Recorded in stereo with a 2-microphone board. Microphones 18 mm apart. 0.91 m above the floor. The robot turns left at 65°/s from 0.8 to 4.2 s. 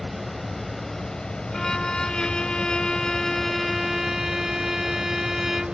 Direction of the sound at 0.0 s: 165° left.